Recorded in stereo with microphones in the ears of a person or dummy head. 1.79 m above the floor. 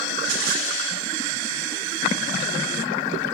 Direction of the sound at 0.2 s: 80° right.